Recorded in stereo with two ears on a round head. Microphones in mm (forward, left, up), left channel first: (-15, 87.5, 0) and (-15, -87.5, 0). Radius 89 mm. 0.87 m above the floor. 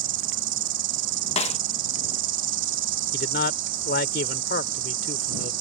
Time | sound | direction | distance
0.0 | an insect | 70° right (ahead or behind) | ?
1.4 | a snare drum | 35° left (ahead or behind) | ?
3.1 | a man speaking | 50° left (ahead or behind) | ?